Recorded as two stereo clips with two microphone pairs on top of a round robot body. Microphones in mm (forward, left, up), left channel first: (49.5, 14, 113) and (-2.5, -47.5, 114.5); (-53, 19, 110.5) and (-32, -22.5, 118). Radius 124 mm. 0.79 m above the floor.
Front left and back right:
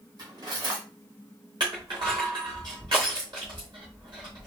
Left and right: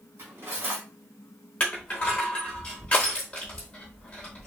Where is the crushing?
175° right, 0.7 m.